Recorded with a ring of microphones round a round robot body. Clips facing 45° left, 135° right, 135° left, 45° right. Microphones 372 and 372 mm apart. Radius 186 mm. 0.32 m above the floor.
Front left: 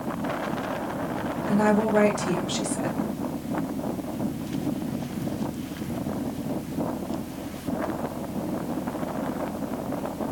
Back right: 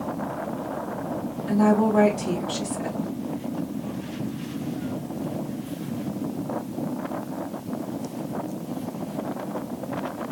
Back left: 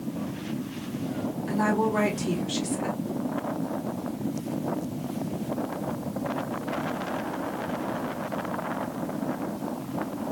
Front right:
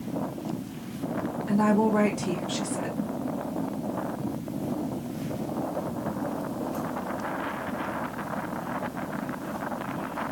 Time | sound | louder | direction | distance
1.5 | a woman speaking | back right 2 dB, front right 3 dB | 55° left | 1.4 m